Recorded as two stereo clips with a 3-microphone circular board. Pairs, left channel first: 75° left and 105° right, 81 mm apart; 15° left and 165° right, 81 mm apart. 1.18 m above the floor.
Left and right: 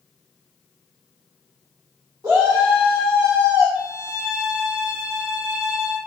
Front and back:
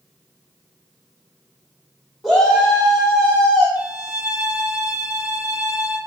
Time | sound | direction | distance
2.2 | a shout | 75° right | 3.5 m
3.8 | a violin | 30° right | 2 m